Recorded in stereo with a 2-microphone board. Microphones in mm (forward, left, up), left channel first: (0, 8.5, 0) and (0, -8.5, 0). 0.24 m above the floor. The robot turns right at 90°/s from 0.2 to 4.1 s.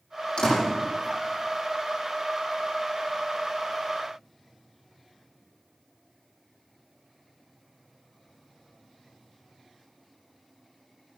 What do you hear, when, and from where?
0.4 s a door slam: 65° left (ahead or behind), 9 m; by 0.6 s 40° left (ahead or behind), 9 m